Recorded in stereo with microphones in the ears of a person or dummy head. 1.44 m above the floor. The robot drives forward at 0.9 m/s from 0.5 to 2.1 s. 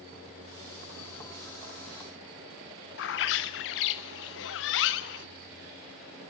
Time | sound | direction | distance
3.0 | a bird | 50° left (ahead or behind) | 0.7 m